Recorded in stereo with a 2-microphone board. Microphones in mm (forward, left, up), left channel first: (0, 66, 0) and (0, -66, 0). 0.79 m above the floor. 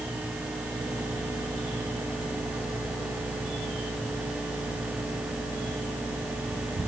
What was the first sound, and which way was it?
Only background noise.